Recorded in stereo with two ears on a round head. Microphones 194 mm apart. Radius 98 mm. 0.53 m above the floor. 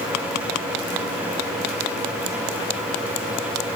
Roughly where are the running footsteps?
No running footsteps in this recording.